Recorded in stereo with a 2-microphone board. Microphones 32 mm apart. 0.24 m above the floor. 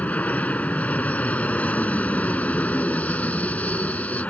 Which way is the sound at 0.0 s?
55° left (ahead or behind).